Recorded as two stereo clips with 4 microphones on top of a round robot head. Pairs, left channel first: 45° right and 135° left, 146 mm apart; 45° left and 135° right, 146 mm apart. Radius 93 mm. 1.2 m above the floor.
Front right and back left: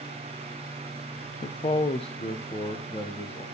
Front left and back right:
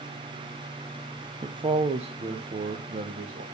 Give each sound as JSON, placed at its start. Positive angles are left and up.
{"t": 1.4, "sound": "a man speaking", "azimuth_deg": -80, "distance_m": 0.6}